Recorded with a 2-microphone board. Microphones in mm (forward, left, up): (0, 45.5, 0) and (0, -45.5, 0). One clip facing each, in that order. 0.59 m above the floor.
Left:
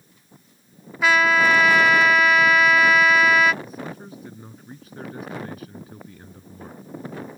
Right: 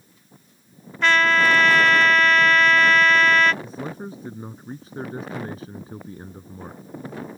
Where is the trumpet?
10° left (ahead or behind).